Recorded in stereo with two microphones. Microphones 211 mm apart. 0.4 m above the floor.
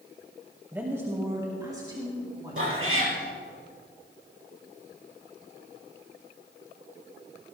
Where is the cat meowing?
90° right, 3 m.